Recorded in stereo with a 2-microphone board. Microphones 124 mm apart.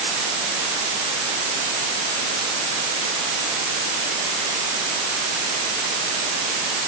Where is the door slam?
I don't hear a door slam.